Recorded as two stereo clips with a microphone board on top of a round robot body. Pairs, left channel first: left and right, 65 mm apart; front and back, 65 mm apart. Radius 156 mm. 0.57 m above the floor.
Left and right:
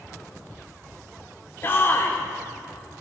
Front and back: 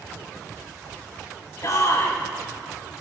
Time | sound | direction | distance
1.6 | a shout | 40° left | 1.9 m